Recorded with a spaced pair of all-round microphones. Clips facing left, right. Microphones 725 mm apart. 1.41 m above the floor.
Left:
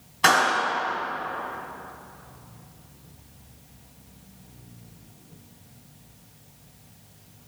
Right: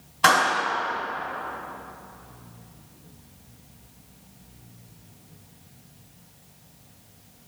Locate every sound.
0.2 s a clap: 5° right (ahead or behind), 3.5 m